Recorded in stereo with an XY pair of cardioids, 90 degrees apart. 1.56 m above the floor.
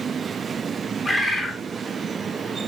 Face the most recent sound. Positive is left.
turn(degrees=5)